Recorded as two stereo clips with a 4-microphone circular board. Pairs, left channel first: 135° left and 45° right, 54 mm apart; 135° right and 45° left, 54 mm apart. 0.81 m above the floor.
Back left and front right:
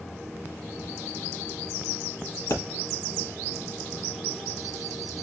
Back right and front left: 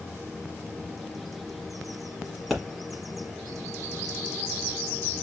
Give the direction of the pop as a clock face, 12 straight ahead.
7 o'clock.